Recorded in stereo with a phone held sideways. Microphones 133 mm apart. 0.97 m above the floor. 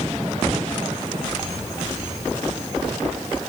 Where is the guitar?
I don't hear a guitar.